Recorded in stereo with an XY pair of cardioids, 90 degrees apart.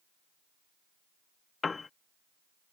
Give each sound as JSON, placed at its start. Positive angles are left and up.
{"t": 1.6, "sound": "a piano", "azimuth_deg": 35}